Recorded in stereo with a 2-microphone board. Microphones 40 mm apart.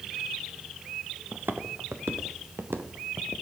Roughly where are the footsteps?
Right.